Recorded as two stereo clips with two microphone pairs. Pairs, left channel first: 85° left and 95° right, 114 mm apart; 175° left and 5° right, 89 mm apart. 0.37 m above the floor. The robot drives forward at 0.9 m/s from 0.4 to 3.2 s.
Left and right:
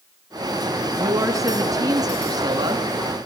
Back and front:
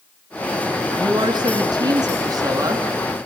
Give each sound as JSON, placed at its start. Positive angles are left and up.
{"t": 0.9, "sound": "a woman speaking", "azimuth_deg": -35, "distance_m": 5.0}